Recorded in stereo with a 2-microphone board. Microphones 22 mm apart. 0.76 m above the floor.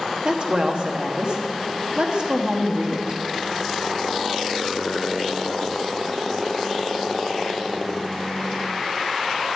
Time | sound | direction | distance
0.2 | a woman speaking | 50° right (ahead or behind) | 1.3 m